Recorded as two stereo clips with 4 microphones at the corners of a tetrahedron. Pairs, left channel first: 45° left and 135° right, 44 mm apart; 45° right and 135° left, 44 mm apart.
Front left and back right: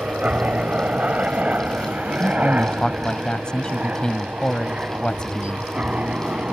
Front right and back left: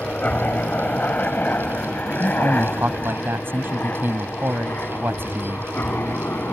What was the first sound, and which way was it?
A helicopter, 90° right.